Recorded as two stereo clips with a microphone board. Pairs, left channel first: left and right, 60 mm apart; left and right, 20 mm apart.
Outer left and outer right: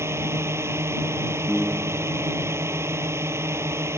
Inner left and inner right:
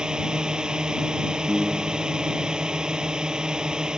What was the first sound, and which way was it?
A drone, 45° right (ahead or behind).